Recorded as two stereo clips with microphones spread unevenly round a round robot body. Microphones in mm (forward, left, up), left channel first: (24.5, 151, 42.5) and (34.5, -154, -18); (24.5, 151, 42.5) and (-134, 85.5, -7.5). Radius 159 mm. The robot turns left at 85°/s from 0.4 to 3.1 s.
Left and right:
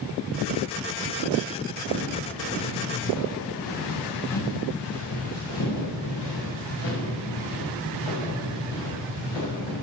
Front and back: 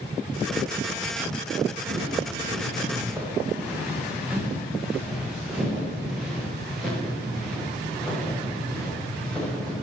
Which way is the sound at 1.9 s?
130° right.